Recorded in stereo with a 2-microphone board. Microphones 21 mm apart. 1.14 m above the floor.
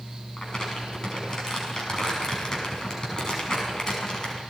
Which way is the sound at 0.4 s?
30° left (ahead or behind).